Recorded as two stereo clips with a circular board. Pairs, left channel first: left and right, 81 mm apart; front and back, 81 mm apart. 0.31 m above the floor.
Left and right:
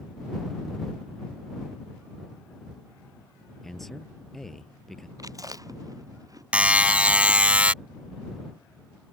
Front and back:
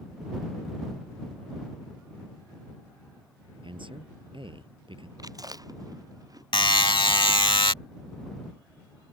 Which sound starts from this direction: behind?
A man speaking, at 3.6 s.